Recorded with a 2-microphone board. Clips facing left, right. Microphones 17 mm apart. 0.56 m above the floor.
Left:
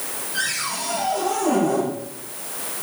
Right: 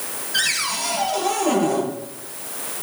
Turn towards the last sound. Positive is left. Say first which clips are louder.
# right 4 dB
turn(degrees=-55)  # may be behind; listen again after turning